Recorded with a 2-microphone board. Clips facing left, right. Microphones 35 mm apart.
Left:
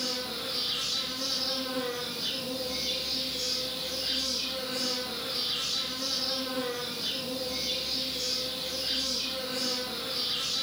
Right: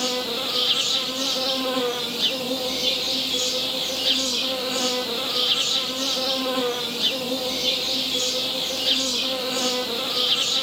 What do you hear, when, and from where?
0.0 s an insect: 70° right (ahead or behind), 0.9 m